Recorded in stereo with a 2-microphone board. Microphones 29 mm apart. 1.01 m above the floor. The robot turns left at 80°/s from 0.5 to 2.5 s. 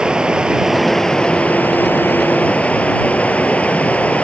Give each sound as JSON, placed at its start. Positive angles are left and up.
{"t": 0.0, "sound": "running water", "azimuth_deg": -150}